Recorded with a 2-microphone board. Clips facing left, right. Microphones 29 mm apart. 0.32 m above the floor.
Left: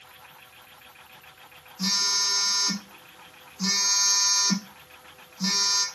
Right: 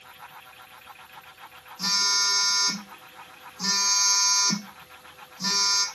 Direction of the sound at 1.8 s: 5° left (ahead or behind).